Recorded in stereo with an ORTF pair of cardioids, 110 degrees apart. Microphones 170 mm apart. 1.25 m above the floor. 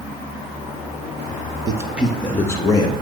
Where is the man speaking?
25° right, 0.6 m; by 2.9 s 25° left, 1.1 m.